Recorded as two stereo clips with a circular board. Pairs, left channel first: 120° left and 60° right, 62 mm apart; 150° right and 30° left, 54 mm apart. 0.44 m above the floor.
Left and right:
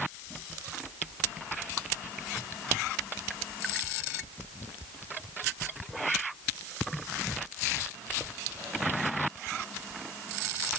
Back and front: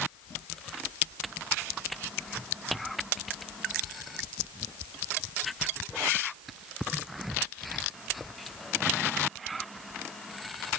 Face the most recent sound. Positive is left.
No sound to turn to.